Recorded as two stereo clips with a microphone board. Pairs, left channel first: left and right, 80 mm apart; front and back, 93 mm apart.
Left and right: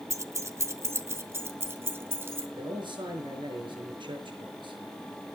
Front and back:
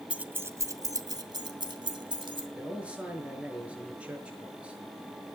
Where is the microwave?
No microwave in this recording.